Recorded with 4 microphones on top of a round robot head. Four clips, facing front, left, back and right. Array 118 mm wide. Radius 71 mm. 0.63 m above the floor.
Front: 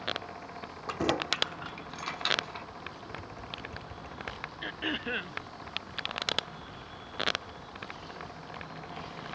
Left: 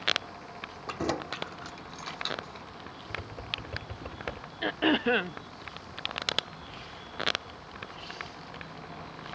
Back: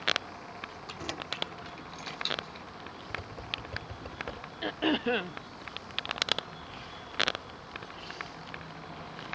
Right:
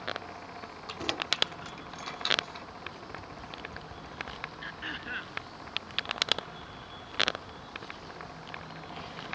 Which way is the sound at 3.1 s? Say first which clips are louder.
Left 2 dB, back 1 dB; 115° left.